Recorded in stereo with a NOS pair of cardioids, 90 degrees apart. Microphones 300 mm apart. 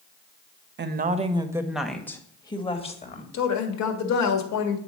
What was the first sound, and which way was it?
A woman speaking, 40° right.